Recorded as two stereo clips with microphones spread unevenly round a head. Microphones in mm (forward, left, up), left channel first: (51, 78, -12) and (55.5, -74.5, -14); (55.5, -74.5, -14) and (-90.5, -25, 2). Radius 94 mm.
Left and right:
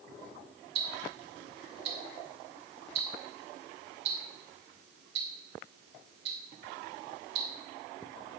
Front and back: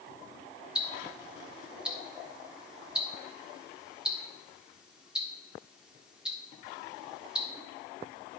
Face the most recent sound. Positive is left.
turn(degrees=-115)